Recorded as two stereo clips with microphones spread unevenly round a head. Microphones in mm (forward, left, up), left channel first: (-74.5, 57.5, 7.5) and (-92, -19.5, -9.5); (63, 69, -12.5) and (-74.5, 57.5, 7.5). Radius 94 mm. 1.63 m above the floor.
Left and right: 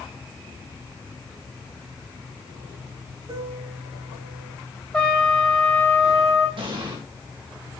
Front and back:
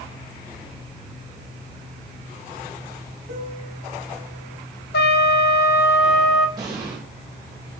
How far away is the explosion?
About 3 m.